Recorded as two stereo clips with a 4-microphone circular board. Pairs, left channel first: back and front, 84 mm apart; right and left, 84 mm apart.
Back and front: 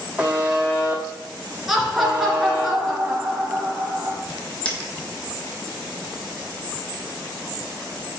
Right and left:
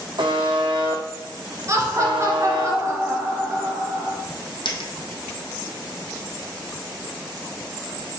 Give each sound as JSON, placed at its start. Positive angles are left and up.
{"t": 0.2, "sound": "a buzzer", "azimuth_deg": 75, "distance_m": 1.9}
{"t": 1.7, "sound": "laughter", "azimuth_deg": 85, "distance_m": 1.8}
{"t": 4.7, "sound": "a dropped coin", "azimuth_deg": -105, "distance_m": 1.4}